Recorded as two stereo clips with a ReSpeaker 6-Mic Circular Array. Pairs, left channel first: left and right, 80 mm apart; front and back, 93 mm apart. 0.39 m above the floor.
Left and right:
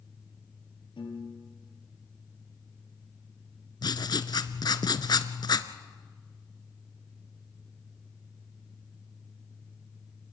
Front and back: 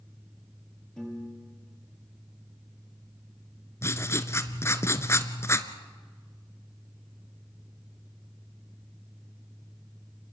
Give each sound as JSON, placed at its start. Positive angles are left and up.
{"t": 1.0, "sound": "a piano", "azimuth_deg": 85, "distance_m": 4.5}
{"t": 3.8, "sound": "writing", "azimuth_deg": 60, "distance_m": 1.0}